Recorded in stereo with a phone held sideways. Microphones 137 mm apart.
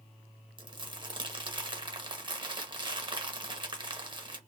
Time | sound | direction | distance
0.6 | crumpling | 35° right (ahead or behind) | 0.8 m